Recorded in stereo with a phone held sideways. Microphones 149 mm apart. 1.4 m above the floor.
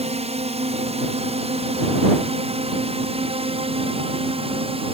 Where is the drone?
45° right (ahead or behind); by 4.9 s 40° right (ahead or behind).